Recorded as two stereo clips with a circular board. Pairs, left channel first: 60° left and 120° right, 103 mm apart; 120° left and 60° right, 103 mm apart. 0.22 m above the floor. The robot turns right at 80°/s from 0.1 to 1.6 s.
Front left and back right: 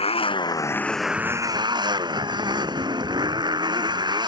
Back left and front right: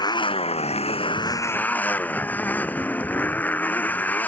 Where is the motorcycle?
75° left; by 4.3 s 165° right.